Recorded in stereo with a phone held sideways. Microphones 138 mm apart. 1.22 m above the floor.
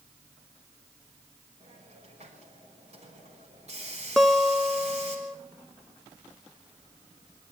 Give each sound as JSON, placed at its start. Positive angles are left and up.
{"t": 1.6, "sound": "a hiss", "side_deg": -50, "distance_m": 5.5}
{"t": 4.2, "sound": "a guitar", "side_deg": 0, "distance_m": 0.7}